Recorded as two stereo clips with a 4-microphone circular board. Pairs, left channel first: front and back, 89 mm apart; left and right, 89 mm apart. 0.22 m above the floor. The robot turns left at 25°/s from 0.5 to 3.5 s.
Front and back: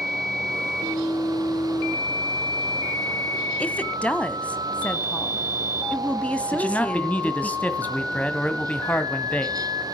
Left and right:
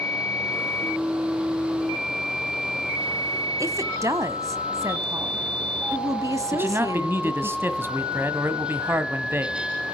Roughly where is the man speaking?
Ahead right.